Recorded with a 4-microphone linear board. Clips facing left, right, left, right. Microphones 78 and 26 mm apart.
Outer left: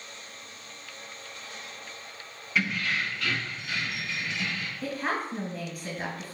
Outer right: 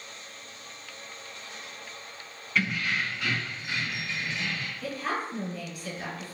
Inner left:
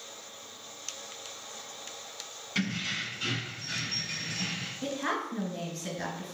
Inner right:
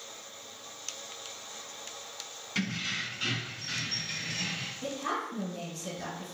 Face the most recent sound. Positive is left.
turn(degrees=40)  # may be behind; listen again after turning